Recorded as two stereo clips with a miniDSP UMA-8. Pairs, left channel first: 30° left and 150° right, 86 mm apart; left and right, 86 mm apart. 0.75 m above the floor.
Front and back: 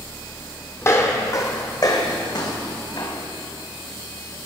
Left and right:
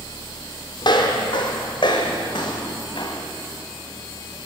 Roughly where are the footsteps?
Left.